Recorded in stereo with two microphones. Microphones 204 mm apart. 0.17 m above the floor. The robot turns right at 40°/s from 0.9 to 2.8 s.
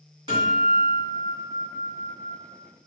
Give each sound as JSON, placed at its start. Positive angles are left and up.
{"t": 0.3, "sound": "a guitar", "azimuth_deg": -140, "distance_m": 1.6}